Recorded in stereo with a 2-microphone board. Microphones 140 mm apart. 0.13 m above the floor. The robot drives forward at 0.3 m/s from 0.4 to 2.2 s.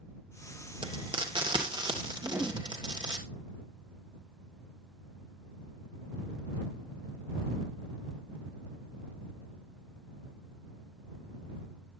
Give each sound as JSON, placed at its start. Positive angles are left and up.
{"t": 0.8, "sound": "frying", "side_deg": -35, "distance_m": 2.5}
{"t": 2.2, "sound": "a whoosh", "side_deg": -15, "distance_m": 1.9}